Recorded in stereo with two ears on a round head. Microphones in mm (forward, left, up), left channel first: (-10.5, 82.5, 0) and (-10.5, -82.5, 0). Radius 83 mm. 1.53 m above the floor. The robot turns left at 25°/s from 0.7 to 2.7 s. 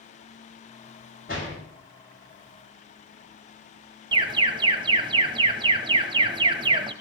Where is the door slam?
50° left (ahead or behind), 6.5 m; by 1.6 s 45° left (ahead or behind), 6.5 m.